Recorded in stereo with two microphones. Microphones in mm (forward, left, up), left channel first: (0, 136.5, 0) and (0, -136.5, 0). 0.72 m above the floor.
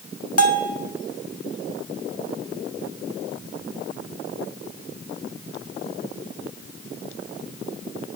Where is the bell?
65° left (ahead or behind), 1.6 m.